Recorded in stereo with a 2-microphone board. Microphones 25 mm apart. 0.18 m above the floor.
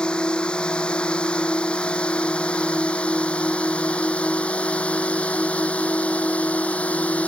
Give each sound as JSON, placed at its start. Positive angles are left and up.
{"t": 0.0, "sound": "a drone", "side_deg": 35}